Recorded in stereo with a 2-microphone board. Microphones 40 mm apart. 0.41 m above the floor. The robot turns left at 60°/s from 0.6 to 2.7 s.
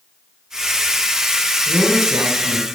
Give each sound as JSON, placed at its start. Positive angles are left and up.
{"t": 1.7, "sound": "a man speaking", "azimuth_deg": -20, "distance_m": 3.5}